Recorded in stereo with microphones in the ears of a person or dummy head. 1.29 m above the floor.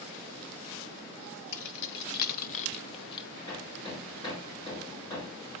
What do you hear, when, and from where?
1.5 s keys jangling: 70° left (ahead or behind), 1.1 m; by 3.3 s 25° left (ahead or behind), 1.0 m
3.5 s hammering: 20° left (ahead or behind), 4 m